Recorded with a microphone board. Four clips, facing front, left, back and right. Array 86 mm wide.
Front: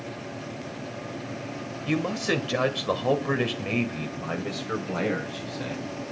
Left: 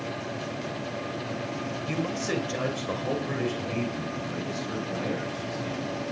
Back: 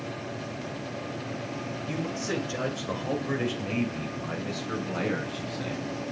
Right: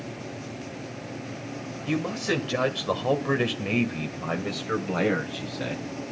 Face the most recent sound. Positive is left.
turn(degrees=-85)